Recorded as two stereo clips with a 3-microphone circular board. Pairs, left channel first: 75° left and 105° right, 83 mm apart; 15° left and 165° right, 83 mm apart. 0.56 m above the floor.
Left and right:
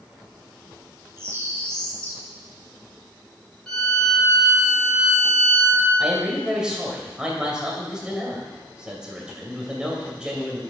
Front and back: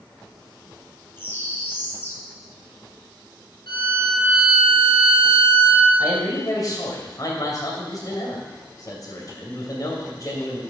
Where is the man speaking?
25° right, 2.5 m.